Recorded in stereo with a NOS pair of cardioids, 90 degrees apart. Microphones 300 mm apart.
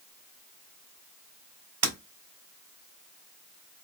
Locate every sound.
1.8 s breaking glass: 55° right, 2.5 m